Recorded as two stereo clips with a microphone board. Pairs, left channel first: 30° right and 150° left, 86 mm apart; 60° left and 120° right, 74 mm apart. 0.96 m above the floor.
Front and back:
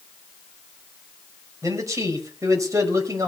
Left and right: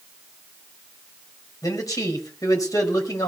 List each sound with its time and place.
1.6 s a man speaking: 100° left, 5.5 m